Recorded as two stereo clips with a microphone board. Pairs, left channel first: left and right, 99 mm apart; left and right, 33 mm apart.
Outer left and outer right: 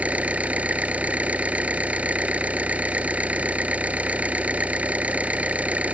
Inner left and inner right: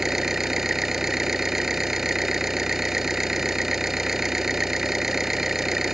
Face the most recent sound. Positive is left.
turn(degrees=-15)  # may be behind; listen again after turning